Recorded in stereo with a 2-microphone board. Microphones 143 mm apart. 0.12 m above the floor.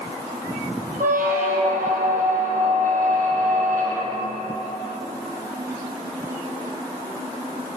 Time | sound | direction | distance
1.0 | a squeak | 70° right (ahead or behind) | 1.9 m